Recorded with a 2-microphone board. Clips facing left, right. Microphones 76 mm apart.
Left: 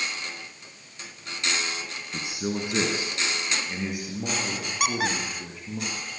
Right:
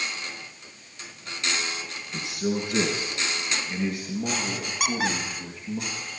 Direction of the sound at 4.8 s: Centre (ahead or behind).